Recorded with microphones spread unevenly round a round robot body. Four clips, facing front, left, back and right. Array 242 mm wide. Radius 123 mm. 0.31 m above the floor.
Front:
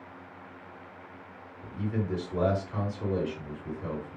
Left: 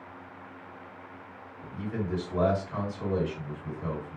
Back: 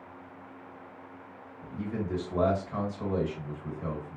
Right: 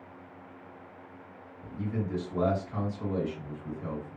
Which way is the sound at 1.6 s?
145° left.